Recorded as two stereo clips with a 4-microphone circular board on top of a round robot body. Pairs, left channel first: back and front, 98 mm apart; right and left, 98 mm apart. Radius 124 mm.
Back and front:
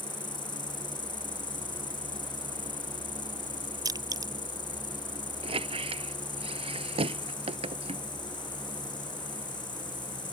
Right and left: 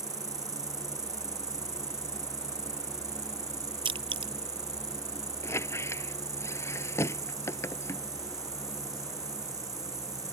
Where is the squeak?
25° right.